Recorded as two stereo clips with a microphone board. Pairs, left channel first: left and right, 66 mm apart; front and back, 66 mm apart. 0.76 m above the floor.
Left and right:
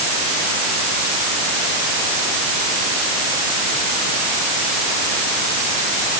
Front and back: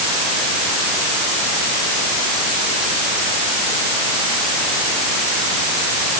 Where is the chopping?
No chopping in this recording.